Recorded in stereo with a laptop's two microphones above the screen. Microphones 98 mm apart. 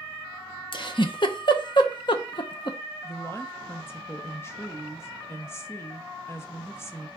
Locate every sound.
0.7 s a giggle: 55° left (ahead or behind), 0.6 m
3.0 s a woman speaking: 25° left (ahead or behind), 0.6 m